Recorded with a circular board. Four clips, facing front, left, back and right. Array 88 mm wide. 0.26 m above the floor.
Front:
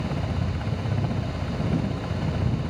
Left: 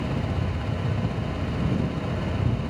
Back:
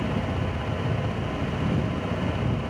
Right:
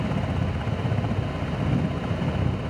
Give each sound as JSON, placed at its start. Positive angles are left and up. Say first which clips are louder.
{"t": 0.0, "sound": "a helicopter", "louder": "right 1 dB, back 2 dB", "azimuth_deg": -70}